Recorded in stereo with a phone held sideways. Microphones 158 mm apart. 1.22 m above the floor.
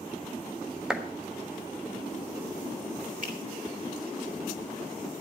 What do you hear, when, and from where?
0.9 s a clap: 5° right (ahead or behind), 1.3 m
3.2 s a finger snap: 60° right (ahead or behind), 3 m